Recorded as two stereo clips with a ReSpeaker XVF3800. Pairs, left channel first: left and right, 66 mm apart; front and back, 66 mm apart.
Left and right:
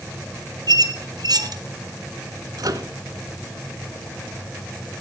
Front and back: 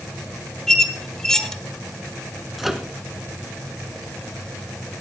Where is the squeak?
85° right, 1.4 m.